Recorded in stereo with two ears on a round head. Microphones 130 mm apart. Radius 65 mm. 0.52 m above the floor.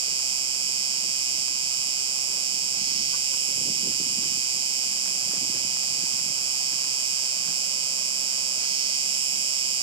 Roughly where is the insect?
Right.